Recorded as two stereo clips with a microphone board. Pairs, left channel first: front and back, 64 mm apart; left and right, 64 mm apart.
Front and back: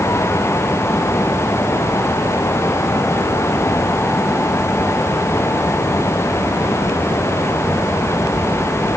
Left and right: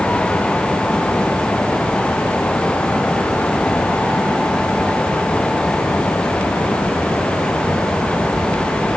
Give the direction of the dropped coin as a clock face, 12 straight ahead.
No dropped coin in this recording.